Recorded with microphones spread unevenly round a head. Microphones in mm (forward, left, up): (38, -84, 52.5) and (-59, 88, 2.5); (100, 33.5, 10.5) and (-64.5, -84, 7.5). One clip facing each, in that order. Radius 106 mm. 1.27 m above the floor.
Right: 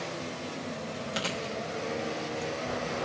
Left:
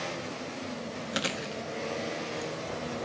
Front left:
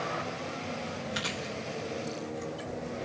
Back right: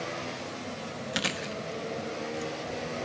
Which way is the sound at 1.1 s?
165° right.